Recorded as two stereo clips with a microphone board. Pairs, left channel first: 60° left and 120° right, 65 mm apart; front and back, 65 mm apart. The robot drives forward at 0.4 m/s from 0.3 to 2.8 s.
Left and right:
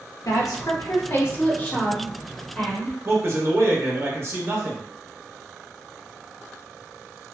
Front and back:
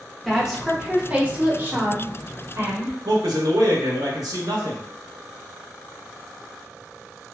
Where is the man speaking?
170° right, 0.8 m.